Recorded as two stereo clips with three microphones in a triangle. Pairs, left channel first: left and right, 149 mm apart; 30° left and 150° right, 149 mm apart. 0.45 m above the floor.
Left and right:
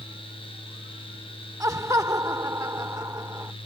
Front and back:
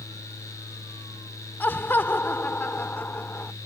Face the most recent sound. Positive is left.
turn(degrees=-35)